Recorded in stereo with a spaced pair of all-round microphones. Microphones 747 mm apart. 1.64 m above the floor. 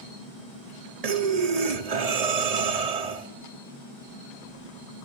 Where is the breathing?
50° right (ahead or behind), 0.8 m.